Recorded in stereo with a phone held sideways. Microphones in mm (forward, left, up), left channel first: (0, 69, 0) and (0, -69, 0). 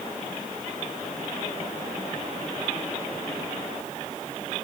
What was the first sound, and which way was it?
Only background noise.